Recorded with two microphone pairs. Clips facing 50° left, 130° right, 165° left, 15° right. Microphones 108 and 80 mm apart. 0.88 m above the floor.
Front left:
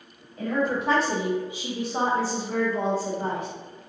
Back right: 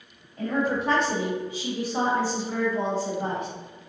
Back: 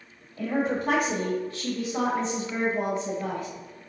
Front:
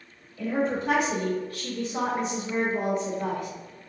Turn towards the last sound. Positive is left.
turn(degrees=5)